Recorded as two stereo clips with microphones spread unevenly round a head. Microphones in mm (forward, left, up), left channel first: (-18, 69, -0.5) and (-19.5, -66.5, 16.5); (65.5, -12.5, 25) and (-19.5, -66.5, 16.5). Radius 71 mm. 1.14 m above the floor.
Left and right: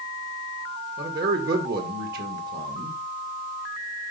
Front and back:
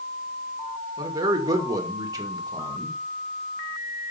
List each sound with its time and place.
1.0 s a man speaking: 95° right, 2 m